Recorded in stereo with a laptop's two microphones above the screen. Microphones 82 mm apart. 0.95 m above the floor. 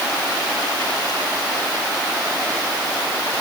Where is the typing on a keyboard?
No typing on a keyboard in this recording.